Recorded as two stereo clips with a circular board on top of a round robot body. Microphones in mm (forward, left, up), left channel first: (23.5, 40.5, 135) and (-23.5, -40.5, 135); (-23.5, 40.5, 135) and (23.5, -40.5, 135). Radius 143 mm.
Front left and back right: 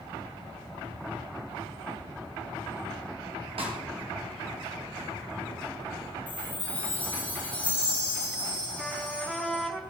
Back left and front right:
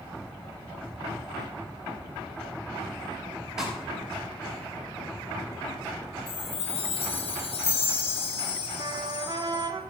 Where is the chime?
135° left, 1.3 m.